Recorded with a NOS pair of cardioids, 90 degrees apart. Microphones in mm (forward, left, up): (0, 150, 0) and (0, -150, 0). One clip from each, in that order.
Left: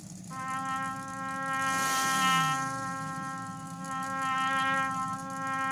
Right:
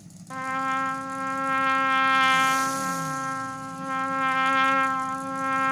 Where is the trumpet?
55° right, 0.6 m.